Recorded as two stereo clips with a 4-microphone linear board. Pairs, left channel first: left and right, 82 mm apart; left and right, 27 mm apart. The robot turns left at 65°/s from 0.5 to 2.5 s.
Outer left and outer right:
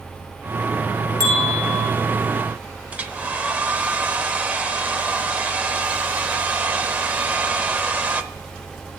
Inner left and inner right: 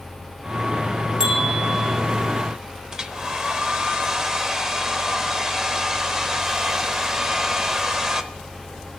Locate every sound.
1.2 s a bell: 40° right, 2 m; by 1.9 s 90° right, 2 m
2.9 s a hair dryer: 20° right (ahead or behind), 0.7 m